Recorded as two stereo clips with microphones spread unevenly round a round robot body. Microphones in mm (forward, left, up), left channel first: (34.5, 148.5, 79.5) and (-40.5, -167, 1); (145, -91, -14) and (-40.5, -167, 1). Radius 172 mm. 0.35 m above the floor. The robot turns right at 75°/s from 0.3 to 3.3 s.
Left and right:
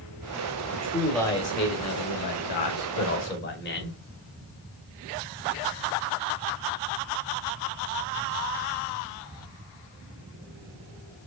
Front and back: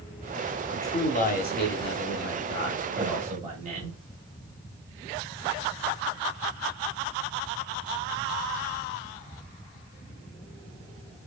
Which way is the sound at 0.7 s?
55° right.